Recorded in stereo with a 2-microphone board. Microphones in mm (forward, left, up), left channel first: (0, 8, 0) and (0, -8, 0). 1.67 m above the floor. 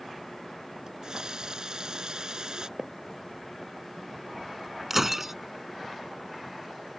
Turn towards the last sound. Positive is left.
turn(degrees=-25)  # may be behind; listen again after turning